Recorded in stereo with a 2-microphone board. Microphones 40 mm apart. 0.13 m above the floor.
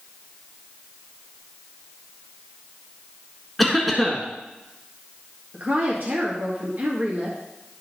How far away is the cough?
About 1.4 m.